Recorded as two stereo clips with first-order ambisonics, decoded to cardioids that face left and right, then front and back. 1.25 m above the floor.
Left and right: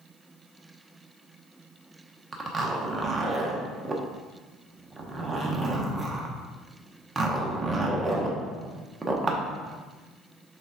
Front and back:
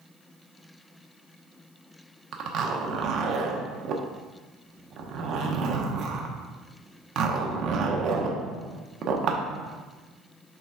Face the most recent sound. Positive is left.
turn(degrees=-155)